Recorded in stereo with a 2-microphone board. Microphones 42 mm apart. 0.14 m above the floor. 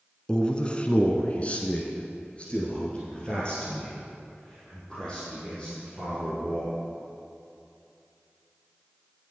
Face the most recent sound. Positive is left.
turn(degrees=20)  # may be behind; listen again after turning